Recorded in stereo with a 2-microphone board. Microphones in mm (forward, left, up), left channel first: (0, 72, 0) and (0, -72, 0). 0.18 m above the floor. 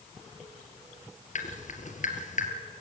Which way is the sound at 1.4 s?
60° left (ahead or behind).